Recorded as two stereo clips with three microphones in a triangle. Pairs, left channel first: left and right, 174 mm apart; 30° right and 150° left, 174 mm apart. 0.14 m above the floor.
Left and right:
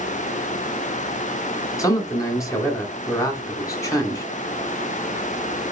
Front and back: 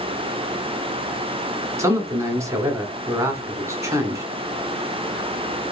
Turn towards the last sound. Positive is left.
turn(degrees=115)